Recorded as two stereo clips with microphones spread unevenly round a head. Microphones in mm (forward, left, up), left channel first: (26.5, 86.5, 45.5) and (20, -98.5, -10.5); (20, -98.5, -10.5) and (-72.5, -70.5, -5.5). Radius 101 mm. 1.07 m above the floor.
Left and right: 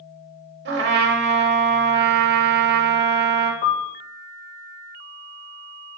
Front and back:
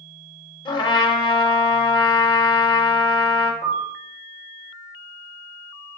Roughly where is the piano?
Ahead.